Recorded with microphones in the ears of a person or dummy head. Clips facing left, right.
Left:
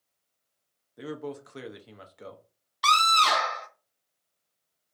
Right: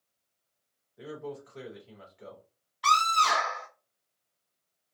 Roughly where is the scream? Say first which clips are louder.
Left 2 dB; left.